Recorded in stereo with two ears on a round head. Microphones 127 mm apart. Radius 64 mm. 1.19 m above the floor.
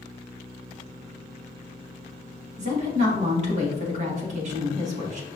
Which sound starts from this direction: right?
A woman speaking, at 2.6 s.